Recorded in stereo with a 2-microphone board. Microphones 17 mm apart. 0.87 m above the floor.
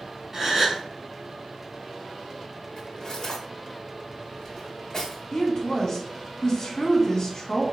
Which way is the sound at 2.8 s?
30° left (ahead or behind).